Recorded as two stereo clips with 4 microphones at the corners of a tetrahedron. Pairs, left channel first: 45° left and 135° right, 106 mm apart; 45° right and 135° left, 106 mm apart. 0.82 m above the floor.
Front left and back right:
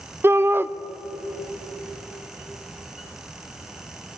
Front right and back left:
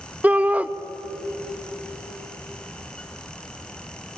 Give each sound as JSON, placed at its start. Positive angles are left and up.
{"t": 0.2, "sound": "a shout", "azimuth_deg": -170, "distance_m": 0.8}